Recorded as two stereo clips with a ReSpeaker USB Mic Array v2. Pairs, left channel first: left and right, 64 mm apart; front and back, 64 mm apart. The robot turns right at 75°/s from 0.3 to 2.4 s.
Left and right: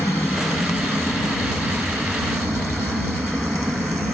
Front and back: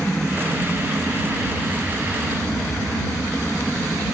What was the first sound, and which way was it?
An aircraft, 110° left.